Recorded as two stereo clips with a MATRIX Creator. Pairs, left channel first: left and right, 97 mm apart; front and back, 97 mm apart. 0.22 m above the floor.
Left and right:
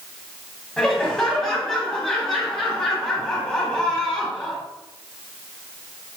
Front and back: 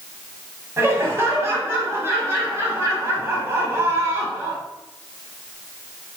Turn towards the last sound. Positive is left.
turn(degrees=165)